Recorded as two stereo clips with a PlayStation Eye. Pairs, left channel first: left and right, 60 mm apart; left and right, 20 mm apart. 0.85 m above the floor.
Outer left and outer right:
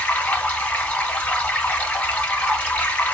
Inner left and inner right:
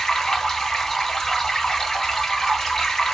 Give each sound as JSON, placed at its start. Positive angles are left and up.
{"t": 0.0, "sound": "running water", "side_deg": 30, "distance_m": 2.5}